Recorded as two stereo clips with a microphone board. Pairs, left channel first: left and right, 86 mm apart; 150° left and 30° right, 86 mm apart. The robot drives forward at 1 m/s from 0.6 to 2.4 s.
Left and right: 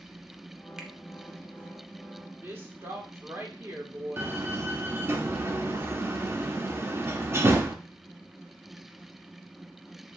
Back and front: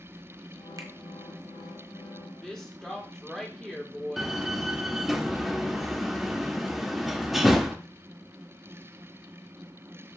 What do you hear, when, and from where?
0.8 s a finger snap: 15° right, 0.7 m; by 0.9 s 20° right, 0.6 m
2.4 s a woman speaking: 135° right, 1.2 m
4.2 s a door slam: 120° right, 0.6 m